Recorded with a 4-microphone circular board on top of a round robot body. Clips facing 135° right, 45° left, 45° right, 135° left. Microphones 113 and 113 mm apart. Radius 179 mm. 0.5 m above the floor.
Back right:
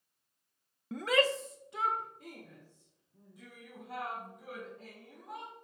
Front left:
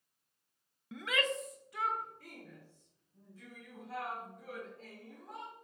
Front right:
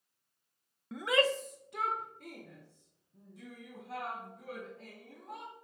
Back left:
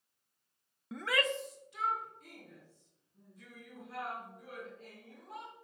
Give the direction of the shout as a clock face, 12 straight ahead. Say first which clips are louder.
Back right 7 dB, front right 5 dB; 5 o'clock.